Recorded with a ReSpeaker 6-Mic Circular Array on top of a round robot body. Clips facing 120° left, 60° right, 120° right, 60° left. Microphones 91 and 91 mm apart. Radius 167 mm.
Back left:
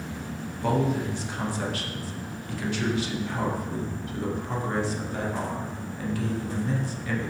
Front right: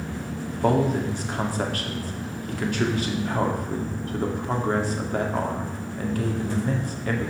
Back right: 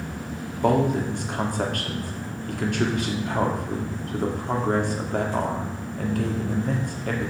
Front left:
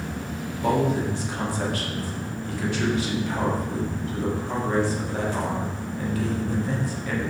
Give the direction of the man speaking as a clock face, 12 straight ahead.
3 o'clock.